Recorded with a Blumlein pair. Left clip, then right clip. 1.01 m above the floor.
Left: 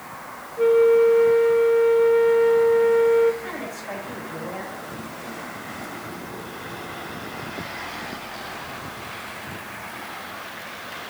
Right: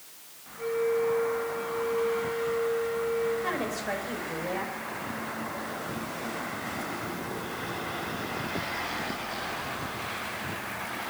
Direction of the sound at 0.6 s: 40° left.